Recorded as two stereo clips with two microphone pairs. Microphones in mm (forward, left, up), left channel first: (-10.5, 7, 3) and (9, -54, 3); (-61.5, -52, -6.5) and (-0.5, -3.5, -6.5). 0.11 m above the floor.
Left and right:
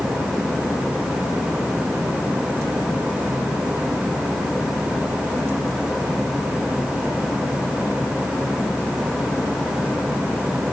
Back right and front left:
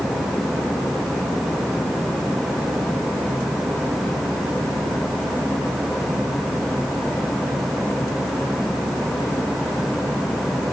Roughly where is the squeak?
No squeak in this recording.